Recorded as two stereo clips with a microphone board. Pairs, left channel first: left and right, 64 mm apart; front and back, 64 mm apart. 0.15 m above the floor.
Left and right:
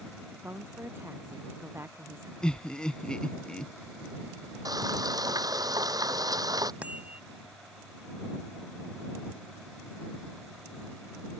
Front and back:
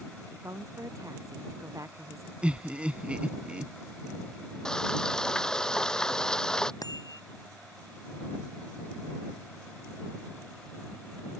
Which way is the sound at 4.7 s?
80° right.